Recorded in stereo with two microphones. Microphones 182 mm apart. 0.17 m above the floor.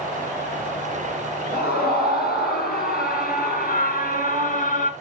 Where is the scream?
60° left (ahead or behind), 4 m; by 4.9 s 45° left (ahead or behind), 2.5 m.